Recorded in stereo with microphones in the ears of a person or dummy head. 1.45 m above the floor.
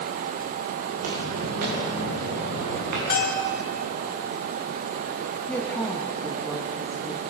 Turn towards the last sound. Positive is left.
turn(degrees=5)  # may be behind; listen again after turning